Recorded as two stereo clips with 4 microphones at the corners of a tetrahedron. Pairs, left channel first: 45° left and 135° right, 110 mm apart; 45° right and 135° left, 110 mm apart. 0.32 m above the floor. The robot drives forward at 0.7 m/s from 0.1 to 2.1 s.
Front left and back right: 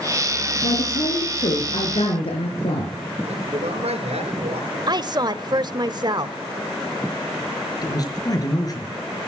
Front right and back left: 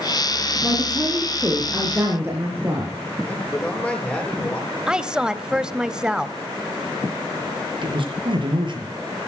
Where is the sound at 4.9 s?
145° right, 1.1 m.